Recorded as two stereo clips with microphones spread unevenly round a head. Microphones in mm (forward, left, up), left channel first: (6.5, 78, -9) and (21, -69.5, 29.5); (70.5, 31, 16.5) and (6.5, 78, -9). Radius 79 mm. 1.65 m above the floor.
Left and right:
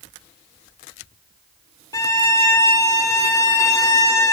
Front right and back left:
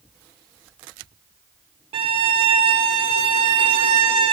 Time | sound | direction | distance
1.9 | a violin | 175° left | 0.8 m